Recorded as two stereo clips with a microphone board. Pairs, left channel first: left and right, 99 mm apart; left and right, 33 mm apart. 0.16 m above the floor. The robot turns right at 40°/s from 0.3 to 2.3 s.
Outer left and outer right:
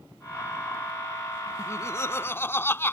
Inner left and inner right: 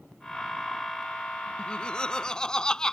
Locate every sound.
1.6 s laughter: 30° left (ahead or behind); by 2.9 s 25° left (ahead or behind)